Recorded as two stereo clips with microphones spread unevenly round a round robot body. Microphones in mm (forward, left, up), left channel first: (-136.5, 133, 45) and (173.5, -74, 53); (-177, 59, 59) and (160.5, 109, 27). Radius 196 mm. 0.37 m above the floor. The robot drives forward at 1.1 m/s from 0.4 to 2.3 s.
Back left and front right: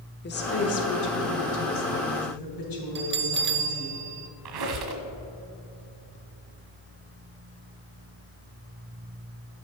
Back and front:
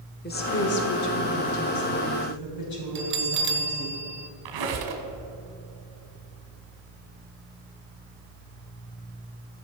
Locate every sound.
0.2 s a woman speaking: 150° left, 1.1 m; by 4.0 s 175° left, 2.5 m
3.0 s a bell: 5° left, 0.8 m
4.5 s a squeak: 10° right, 1.5 m